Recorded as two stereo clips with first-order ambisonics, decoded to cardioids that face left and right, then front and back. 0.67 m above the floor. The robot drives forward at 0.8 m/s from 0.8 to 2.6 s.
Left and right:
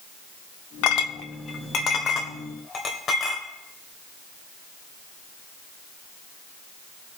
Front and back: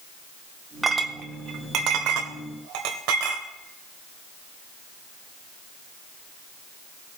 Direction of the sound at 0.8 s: 100° left.